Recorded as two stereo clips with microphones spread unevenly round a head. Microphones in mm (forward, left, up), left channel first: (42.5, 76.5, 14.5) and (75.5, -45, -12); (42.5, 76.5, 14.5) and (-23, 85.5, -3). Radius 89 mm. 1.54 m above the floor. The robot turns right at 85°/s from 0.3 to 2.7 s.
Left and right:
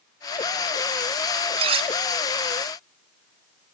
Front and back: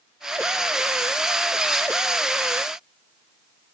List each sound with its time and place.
1.6 s cutlery clinking: 95° right, 0.7 m; by 1.9 s 65° right, 0.7 m